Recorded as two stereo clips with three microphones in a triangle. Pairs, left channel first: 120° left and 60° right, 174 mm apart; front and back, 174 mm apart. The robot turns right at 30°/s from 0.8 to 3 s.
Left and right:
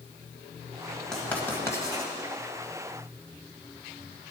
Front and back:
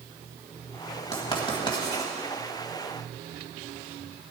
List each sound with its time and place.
1.1 s writing: 35° left, 1.9 m; by 2.1 s 65° left, 1.9 m